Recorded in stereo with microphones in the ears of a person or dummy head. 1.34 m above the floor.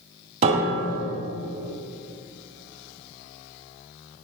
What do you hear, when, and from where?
0.4 s a piano: 35° right (ahead or behind), 1.8 m